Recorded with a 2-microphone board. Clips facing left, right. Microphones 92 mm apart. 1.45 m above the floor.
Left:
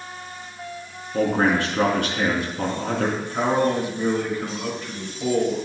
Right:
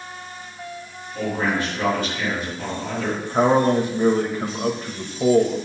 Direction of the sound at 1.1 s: 70° left (ahead or behind).